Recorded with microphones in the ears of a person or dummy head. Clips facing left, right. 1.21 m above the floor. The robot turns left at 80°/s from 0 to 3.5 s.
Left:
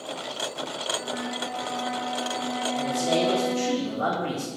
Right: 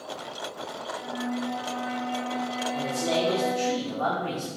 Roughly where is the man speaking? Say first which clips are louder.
Left 2 dB; behind right.